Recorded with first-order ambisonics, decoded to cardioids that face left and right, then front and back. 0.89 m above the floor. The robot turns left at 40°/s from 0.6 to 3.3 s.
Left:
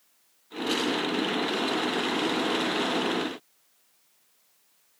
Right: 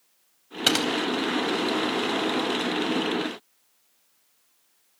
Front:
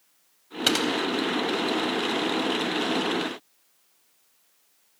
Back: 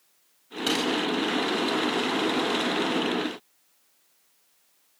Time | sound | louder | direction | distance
0.7 | typing on a keyboard | right 6 dB, front 3 dB | 65° right | 3.5 m